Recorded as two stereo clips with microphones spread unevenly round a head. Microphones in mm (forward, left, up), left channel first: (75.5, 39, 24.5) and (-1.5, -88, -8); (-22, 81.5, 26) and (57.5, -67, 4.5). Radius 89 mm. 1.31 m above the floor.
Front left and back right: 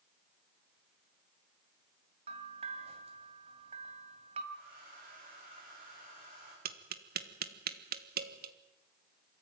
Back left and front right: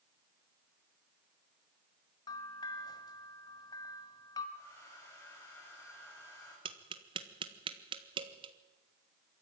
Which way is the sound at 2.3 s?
Straight behind.